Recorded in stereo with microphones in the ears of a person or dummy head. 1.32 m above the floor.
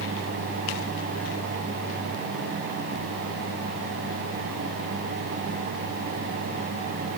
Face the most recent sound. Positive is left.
No sound to turn to.